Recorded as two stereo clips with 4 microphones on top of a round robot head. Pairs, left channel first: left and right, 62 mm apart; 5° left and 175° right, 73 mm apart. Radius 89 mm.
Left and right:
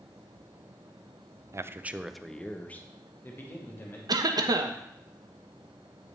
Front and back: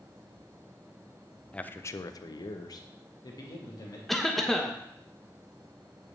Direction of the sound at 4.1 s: 85° right.